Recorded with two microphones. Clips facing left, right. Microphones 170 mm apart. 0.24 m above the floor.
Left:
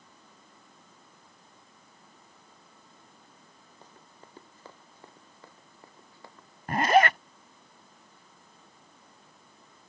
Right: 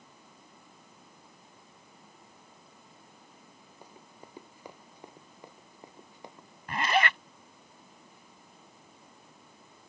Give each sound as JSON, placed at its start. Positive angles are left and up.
{"t": 3.8, "sound": "running footsteps", "side_deg": -10}
{"t": 6.7, "sound": "a zipper", "side_deg": 45}